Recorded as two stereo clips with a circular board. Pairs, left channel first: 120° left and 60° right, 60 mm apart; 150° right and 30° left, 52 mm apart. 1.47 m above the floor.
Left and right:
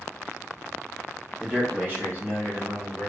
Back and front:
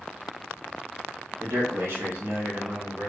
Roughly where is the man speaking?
Ahead.